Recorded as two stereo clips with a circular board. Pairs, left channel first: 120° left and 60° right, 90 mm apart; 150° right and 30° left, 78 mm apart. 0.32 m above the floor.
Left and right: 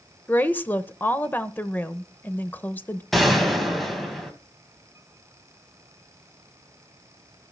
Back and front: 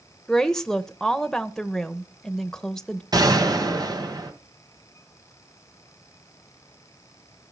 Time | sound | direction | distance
0.3 | a woman speaking | 135° left | 0.8 m
3.1 | a gunshot | 30° left | 2.5 m